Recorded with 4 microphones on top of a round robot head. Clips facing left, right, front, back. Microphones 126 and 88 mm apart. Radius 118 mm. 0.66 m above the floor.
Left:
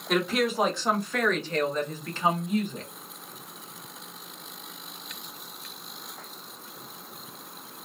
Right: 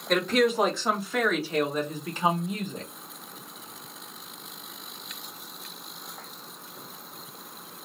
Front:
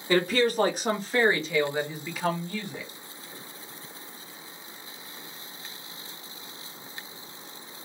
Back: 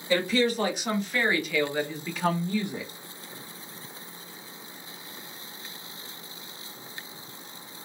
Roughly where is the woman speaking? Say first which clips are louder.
Right 3 dB, front 1 dB; ahead.